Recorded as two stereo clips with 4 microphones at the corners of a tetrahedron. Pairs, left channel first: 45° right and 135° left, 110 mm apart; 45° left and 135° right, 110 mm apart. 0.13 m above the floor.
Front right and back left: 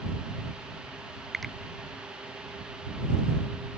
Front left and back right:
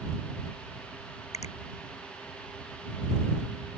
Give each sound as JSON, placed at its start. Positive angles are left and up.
{"t": 1.3, "sound": "a finger snap", "azimuth_deg": 45}